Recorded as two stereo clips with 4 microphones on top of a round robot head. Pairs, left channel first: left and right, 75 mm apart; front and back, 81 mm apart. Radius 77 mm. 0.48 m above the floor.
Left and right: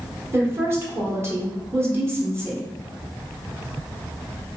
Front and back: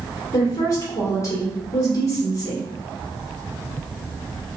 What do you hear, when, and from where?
0.3 s a woman speaking: 40° right, 1.4 m